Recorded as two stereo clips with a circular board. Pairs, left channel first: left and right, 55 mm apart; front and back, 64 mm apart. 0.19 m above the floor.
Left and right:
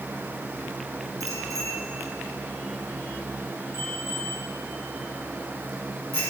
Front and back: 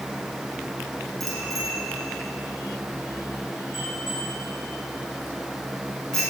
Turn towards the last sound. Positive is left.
turn(degrees=-100)